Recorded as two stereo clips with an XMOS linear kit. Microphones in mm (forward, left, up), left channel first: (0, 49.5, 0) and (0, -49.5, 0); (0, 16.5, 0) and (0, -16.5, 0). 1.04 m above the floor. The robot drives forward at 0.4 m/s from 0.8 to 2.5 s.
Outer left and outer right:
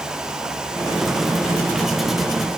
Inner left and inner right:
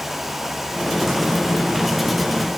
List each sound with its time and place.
Only background noise.